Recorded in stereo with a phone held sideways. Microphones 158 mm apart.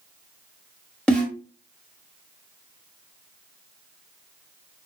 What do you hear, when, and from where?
1.1 s a snare drum: 5° left (ahead or behind), 1.2 m